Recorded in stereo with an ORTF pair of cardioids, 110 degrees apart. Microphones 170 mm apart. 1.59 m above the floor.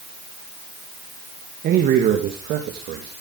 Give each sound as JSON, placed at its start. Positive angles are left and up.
{"t": 1.6, "sound": "a man speaking", "azimuth_deg": -60, "distance_m": 2.5}